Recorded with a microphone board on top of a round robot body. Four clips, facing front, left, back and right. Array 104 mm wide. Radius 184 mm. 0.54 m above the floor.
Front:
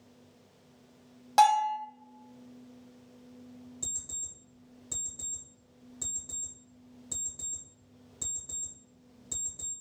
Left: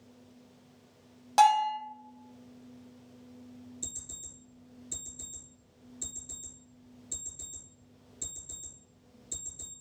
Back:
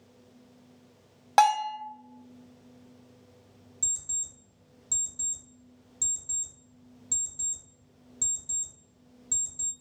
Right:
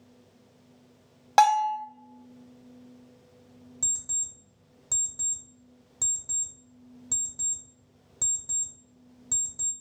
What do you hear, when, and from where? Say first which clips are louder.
1.4 s a bell: right 2 dB, even; 125° right, 1.0 m
3.8 s an alarm clock: right 1 dB, front 1 dB; 85° right, 0.9 m